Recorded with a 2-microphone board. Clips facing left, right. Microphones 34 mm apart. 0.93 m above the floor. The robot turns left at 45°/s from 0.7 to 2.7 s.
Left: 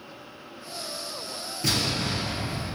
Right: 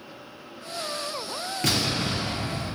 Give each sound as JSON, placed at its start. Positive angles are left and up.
{"t": 1.6, "sound": "an explosion", "azimuth_deg": -80, "distance_m": 0.8}